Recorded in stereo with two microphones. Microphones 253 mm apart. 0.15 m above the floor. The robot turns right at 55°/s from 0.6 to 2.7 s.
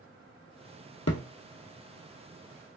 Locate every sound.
1.1 s a thud: 70° left (ahead or behind), 0.7 m; by 1.2 s 75° left (ahead or behind), 0.7 m